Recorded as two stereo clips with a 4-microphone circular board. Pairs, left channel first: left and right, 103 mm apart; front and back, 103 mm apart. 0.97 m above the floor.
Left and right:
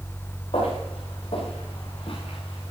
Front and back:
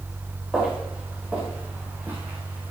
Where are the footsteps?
100° left, 6.5 m; by 2.7 s 115° left, 5 m.